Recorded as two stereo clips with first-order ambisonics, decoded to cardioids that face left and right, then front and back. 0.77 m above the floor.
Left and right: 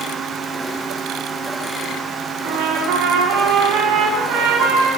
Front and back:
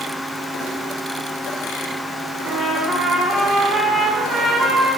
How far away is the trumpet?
About 1.1 m.